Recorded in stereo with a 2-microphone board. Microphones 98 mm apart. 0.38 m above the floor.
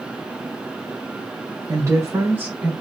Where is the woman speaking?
35° right (ahead or behind), 1.7 m; by 2.7 s 15° right (ahead or behind), 1.5 m.